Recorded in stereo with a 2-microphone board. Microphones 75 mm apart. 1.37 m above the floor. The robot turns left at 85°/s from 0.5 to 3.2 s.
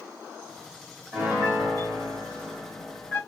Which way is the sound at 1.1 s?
40° right.